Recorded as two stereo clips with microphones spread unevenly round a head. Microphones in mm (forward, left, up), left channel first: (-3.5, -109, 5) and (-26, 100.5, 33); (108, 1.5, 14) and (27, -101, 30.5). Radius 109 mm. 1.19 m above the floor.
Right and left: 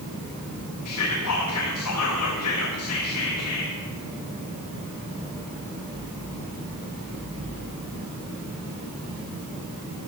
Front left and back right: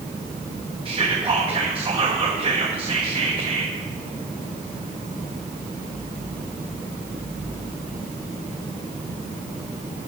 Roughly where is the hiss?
I don't hear a hiss.